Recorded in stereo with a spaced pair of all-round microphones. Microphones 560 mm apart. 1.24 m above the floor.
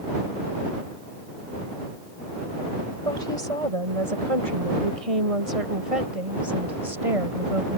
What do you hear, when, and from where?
3.0 s a woman speaking: 75° right (ahead or behind); by 7.8 s 85° right